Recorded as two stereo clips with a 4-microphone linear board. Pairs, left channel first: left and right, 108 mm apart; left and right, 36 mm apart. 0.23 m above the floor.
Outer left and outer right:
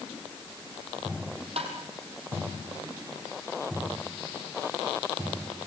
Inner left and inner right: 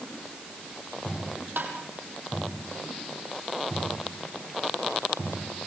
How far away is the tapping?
About 4.5 m.